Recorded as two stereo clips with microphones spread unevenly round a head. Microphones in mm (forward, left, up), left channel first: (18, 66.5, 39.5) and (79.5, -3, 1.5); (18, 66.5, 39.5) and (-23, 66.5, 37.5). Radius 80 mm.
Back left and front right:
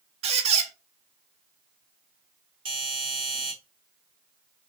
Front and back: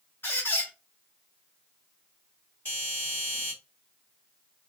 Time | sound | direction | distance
0.2 | a squeak | 45° right | 0.5 m
2.6 | a doorbell | 60° right | 1.8 m